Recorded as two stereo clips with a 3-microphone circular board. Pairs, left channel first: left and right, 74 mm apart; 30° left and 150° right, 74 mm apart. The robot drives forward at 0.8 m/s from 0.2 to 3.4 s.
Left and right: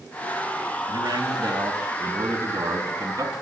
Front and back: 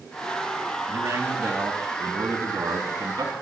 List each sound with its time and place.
0.9 s a man speaking: 105° right, 4.5 m; by 3.3 s 125° right, 5.5 m